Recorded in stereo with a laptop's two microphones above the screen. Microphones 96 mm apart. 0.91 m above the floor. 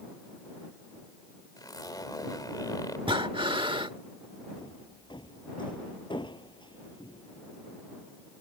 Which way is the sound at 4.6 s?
55° left (ahead or behind).